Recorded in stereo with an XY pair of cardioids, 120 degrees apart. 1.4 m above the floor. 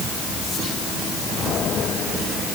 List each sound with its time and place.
Only background noise.